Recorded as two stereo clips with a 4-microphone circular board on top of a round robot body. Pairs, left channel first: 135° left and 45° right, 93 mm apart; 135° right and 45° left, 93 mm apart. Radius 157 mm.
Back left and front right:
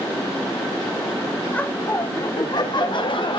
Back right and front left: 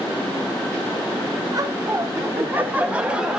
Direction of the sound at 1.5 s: 65° left.